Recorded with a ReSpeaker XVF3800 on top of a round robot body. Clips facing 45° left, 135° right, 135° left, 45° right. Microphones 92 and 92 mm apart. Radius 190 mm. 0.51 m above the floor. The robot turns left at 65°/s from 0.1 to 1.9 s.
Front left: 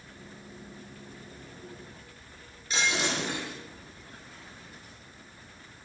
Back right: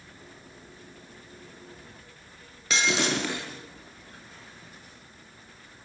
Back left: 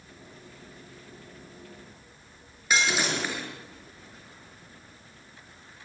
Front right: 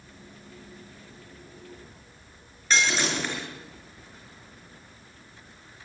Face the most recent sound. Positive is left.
turn(degrees=-140)